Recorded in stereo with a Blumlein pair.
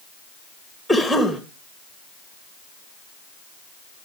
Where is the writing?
No writing in this recording.